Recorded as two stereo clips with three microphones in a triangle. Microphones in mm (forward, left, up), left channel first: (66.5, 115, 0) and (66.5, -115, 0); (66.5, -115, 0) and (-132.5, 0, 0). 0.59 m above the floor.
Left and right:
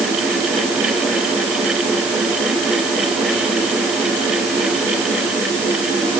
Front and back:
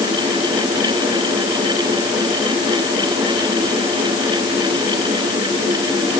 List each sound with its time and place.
Only background noise.